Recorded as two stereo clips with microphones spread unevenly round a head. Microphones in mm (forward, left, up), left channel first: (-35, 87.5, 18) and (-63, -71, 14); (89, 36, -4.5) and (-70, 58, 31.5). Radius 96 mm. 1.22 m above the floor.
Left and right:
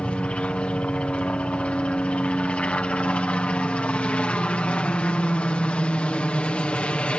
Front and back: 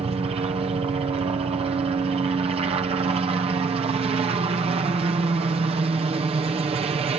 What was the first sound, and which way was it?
A helicopter, 155° left.